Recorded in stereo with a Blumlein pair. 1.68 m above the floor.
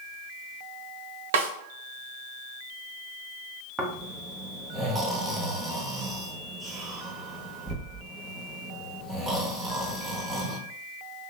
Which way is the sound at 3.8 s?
10° right.